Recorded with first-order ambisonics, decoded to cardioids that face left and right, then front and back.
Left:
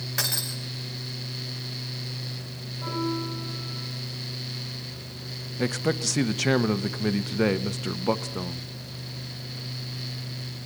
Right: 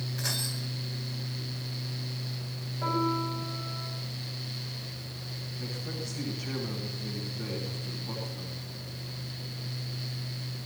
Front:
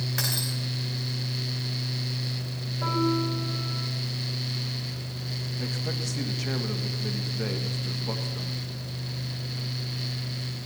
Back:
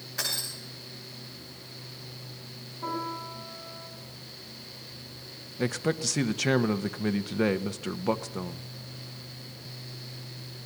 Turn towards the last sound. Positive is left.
turn(degrees=120)